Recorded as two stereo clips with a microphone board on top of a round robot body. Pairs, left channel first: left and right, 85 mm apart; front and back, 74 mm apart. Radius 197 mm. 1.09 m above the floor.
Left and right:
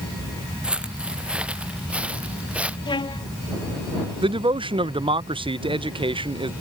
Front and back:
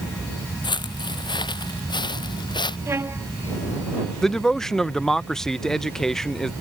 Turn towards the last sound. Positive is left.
turn(degrees=-85)